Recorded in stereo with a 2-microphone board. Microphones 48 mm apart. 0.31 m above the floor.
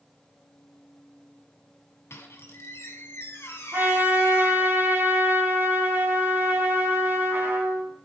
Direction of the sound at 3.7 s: 40° right (ahead or behind).